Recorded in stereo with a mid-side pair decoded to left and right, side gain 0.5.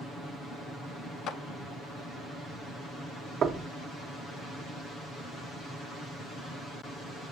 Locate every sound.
1.3 s a clap: 65° left, 0.7 m
3.4 s knocking: 50° right, 0.9 m